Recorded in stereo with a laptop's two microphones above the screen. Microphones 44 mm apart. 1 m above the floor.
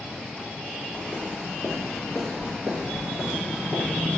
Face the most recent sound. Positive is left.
turn(degrees=-25)  # may be behind; listen again after turning